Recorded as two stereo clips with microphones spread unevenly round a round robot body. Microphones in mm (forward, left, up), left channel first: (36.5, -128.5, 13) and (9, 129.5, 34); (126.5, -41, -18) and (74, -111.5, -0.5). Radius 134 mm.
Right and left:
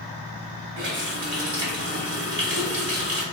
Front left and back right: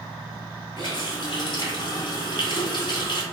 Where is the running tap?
50° left, 1.5 m.